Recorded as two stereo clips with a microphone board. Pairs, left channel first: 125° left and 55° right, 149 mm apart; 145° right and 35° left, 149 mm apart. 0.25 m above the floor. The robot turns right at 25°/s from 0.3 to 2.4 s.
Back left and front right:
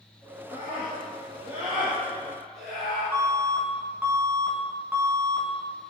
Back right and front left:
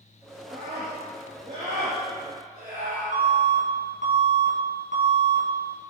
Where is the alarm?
20° left, 4.5 m.